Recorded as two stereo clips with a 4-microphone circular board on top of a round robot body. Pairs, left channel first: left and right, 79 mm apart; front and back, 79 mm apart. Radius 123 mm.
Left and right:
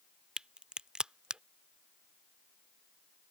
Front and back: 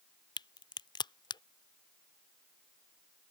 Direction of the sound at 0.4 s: 10° right.